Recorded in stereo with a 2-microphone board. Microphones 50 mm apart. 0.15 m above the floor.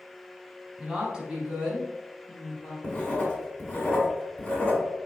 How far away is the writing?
About 1.2 m.